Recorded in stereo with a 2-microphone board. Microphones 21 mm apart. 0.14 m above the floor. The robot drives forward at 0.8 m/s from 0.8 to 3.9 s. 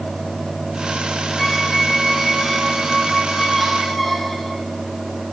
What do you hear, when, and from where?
1.4 s a squeak: 10° left (ahead or behind), 0.6 m; by 4.6 s 5° left (ahead or behind), 2.5 m